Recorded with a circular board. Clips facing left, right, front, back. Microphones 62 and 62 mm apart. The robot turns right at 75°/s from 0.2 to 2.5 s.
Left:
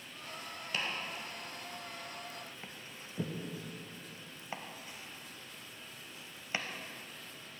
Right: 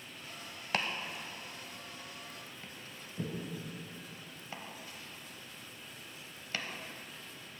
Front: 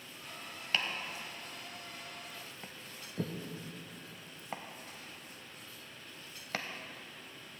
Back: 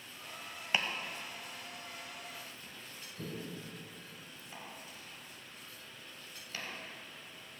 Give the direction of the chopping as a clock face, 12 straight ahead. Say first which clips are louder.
Right 3 dB, back 1 dB; 4 o'clock.